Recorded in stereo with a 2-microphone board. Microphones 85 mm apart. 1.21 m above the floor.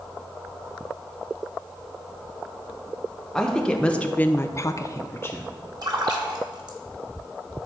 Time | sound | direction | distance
3.3 | a woman speaking | 5° left (ahead or behind) | 1.5 m
5.8 | a splash | 55° right (ahead or behind) | 1.5 m